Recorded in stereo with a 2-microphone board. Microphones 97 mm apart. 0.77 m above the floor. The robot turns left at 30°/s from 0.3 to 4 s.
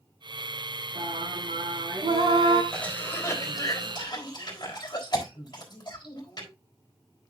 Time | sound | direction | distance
0.9 | singing | 80° right | 5 m
2.7 | a cough | 10° left (ahead or behind) | 4 m